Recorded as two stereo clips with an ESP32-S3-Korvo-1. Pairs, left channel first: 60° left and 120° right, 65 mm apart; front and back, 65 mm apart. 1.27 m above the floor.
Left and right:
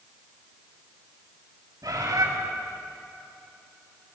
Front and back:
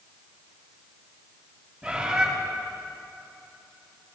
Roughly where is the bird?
Right.